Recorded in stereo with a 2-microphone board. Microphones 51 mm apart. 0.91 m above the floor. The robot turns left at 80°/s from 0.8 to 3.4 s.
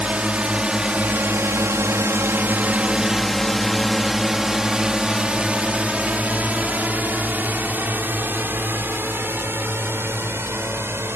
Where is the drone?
25° right (ahead or behind); by 11.2 s 50° right (ahead or behind).